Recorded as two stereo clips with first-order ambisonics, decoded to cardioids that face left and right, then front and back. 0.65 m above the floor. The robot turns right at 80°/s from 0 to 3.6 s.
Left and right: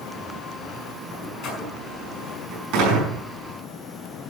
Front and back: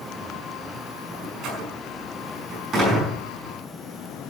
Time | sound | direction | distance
1.1 | a door slam | 110° left | 5.5 m